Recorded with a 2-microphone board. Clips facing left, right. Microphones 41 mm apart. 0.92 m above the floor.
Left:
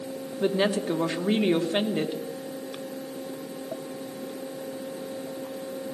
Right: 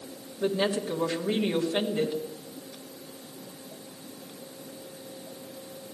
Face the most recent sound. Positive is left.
turn(degrees=30)  # may be behind; listen again after turning